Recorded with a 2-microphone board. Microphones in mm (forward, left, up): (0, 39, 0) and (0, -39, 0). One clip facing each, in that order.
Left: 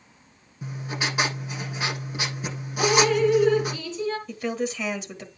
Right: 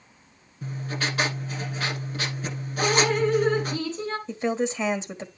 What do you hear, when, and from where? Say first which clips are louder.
0.6 s writing: even; 10° left (ahead or behind), 9 m
2.8 s dripping: left 2 dB; 40° right (ahead or behind), 3 m
4.3 s a woman speaking: right 2 dB; 30° right (ahead or behind), 1.6 m